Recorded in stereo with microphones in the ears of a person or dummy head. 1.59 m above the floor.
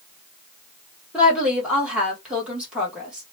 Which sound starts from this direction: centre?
A woman speaking, at 1.1 s.